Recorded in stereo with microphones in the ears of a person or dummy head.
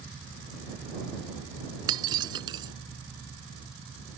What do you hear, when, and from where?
1.9 s breaking glass: 25° right (ahead or behind)